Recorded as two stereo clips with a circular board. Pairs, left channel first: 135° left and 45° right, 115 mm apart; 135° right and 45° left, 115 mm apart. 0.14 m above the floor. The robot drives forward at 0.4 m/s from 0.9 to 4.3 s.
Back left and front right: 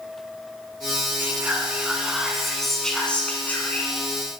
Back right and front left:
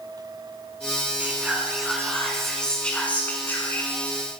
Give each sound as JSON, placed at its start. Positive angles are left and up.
{"t": 1.2, "sound": "whispering", "azimuth_deg": -5, "distance_m": 1.2}